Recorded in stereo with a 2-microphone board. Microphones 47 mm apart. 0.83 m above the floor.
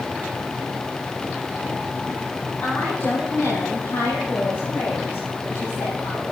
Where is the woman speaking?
50° left (ahead or behind), 4.5 m; by 6.2 s 80° left, 6.5 m.